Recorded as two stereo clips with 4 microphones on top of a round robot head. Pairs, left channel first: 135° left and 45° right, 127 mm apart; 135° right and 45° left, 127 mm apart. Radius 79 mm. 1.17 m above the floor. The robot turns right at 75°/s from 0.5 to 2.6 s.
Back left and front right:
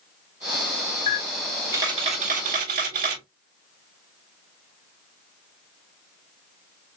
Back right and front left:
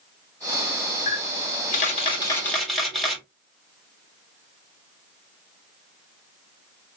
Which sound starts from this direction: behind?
A camera shutter, at 1.1 s.